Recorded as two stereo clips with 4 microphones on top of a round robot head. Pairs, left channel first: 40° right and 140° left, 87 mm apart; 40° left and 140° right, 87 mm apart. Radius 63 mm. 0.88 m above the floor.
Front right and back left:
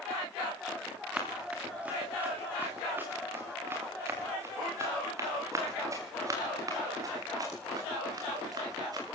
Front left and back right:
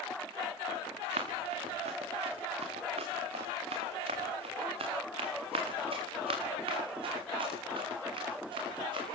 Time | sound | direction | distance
1.1 | running footsteps | 140° right | 5.5 m